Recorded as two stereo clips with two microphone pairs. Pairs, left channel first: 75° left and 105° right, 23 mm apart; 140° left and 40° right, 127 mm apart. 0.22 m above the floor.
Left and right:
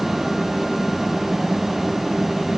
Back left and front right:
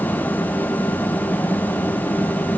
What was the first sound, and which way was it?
Only background noise.